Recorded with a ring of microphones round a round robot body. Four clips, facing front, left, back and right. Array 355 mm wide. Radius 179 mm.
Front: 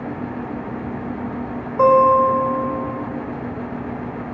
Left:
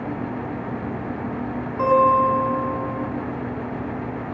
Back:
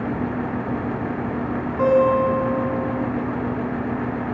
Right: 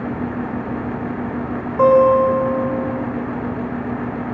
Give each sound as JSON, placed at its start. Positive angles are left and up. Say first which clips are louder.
{"t": 1.8, "sound": "a guitar", "louder": "right 5 dB, front 4 dB", "azimuth_deg": -70, "distance_m": 5.5}